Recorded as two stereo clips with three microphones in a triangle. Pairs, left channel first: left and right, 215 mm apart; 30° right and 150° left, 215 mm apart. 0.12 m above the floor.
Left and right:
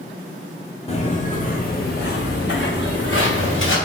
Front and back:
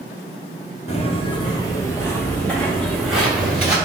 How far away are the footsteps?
About 1.4 m.